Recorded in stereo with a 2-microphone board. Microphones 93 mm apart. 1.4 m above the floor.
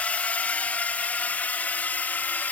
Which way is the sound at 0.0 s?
15° left (ahead or behind).